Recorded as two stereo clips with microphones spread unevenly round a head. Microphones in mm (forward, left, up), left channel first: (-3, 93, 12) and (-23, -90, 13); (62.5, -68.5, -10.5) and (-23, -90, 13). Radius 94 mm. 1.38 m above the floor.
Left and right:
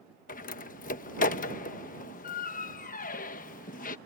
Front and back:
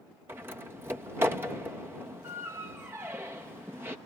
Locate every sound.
0.3 s a door slam: 125° left